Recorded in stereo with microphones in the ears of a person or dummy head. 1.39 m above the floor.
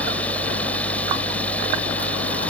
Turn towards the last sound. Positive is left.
turn(degrees=5)  # may be behind; listen again after turning